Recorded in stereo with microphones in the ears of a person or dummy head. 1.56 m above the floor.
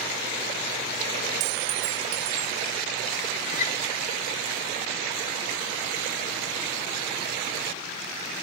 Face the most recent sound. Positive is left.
turn(degrees=45)  # may be behind; listen again after turning